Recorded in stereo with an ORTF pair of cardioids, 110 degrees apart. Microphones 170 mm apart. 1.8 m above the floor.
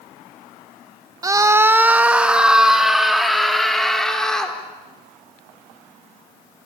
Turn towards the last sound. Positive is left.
turn(degrees=5)